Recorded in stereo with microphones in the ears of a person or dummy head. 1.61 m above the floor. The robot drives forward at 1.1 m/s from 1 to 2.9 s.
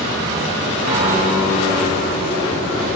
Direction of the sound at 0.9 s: 35° right (ahead or behind).